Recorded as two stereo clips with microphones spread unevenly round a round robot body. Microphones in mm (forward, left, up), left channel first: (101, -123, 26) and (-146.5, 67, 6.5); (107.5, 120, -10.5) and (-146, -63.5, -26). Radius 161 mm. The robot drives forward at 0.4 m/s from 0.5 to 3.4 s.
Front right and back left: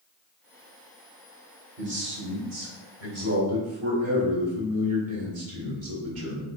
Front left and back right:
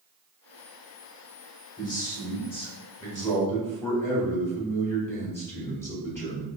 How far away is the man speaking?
About 1.9 m.